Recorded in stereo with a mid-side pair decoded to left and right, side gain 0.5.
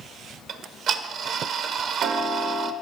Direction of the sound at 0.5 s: 60° right.